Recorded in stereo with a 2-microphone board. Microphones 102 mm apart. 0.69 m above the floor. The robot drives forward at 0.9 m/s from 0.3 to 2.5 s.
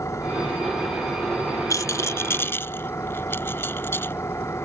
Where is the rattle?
35° left (ahead or behind); by 4.1 s 25° left (ahead or behind).